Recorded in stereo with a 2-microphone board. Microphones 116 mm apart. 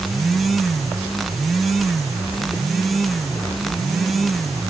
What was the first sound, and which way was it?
Only background noise.